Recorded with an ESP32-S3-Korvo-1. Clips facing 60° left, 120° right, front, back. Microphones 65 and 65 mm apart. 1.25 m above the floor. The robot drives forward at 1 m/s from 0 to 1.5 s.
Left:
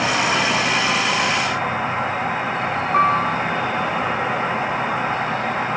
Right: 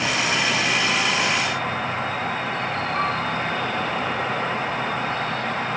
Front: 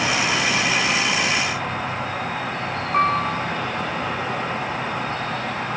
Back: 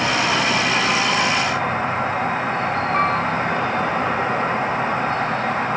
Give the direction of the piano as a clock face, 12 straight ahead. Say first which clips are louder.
Left 10 dB, front 3 dB; 9 o'clock.